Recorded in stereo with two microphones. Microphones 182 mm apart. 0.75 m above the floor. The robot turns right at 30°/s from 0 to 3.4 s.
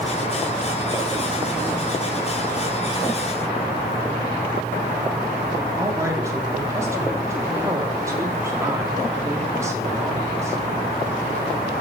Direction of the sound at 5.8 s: 15° right (ahead or behind).